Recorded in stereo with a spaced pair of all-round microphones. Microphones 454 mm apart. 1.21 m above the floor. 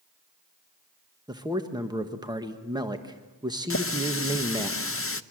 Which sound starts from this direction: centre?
A man speaking, at 1.3 s.